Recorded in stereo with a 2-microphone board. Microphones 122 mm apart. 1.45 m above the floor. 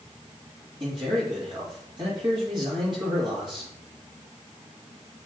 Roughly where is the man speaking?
Right.